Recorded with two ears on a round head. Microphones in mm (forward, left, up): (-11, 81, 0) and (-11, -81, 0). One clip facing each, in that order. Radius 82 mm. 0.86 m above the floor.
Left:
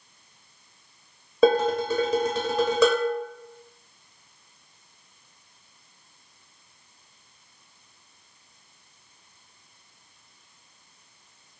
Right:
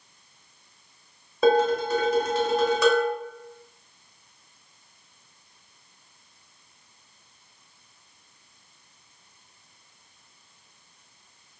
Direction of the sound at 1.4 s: 75° left (ahead or behind).